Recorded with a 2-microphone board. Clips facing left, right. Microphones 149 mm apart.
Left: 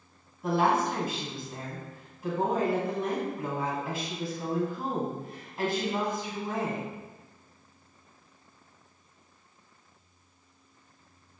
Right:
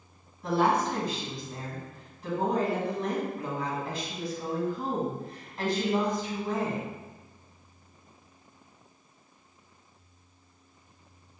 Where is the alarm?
I don't hear an alarm.